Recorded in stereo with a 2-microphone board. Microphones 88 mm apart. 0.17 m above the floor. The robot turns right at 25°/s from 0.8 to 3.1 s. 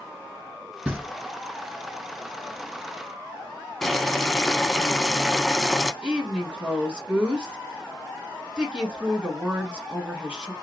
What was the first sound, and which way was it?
Knocking, 10° right (ahead or behind).